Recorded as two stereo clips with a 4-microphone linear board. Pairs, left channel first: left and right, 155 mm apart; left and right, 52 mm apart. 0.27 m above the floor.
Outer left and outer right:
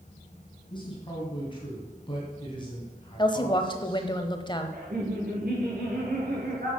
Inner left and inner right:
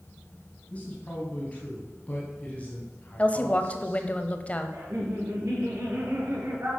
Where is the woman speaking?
30° left (ahead or behind), 1.0 m.